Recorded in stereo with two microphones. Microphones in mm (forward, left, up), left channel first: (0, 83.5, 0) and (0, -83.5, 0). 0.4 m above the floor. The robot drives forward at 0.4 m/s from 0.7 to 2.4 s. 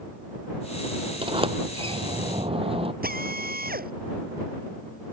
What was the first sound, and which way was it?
A sliding door, 30° right (ahead or behind).